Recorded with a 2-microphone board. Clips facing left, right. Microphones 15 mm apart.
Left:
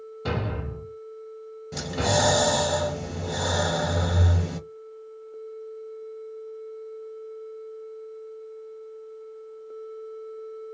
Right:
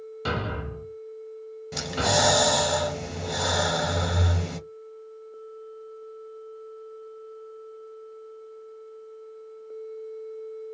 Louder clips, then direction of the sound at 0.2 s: Even; 80° right.